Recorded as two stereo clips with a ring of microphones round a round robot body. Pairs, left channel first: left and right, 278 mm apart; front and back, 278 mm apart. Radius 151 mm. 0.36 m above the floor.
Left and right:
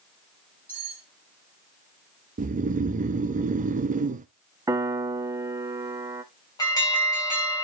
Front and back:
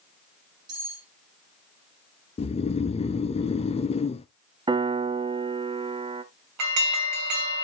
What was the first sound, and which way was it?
Cutlery clinking, 175° right.